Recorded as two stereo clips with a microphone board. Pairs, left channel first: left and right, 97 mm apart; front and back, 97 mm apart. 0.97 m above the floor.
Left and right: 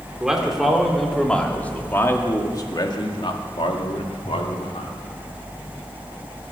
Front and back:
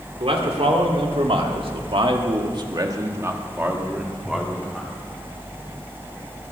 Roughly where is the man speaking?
Behind.